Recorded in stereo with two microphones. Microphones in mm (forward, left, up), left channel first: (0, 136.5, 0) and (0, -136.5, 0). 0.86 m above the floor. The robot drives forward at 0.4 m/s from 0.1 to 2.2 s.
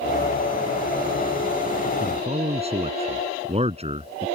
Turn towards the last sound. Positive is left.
turn(degrees=-20)  # may be behind; listen again after turning